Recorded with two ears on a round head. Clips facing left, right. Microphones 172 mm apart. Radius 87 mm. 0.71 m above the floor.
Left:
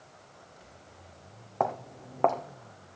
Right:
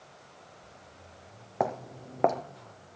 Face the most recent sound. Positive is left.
turn(degrees=-20)  # may be behind; listen again after turning